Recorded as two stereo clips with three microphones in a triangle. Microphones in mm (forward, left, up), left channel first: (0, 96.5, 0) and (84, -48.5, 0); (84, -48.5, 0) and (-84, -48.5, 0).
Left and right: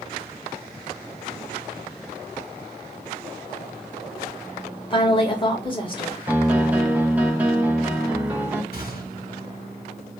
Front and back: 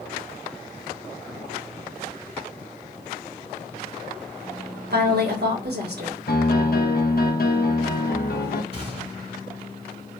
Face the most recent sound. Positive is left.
turn(degrees=130)